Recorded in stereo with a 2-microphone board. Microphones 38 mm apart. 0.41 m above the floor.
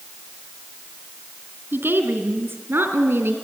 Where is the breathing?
No breathing in this recording.